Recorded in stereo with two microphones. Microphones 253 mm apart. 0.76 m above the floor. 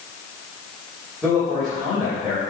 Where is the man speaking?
Centre (ahead or behind), 3 m.